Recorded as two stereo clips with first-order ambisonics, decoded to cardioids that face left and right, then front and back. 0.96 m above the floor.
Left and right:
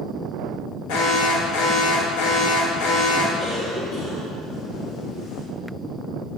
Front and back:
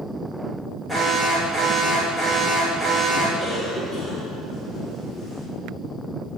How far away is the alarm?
About 1.3 m.